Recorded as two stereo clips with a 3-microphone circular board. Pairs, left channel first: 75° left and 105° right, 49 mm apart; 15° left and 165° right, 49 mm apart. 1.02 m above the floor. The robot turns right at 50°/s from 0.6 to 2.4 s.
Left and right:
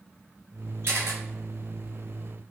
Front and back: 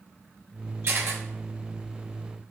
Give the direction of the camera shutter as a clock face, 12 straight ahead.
5 o'clock.